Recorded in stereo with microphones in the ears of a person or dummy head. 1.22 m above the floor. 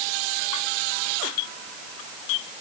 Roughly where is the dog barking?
No dog barking in this recording.